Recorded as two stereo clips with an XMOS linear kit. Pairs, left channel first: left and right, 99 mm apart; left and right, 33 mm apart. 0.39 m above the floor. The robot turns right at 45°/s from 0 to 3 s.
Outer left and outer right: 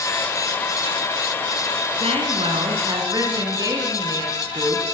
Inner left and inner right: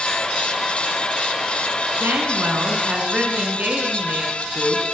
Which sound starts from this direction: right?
A woman speaking, at 2.0 s.